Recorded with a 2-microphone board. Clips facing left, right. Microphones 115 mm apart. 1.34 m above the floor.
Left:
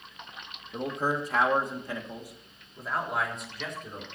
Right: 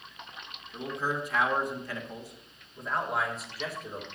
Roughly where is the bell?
No bell in this recording.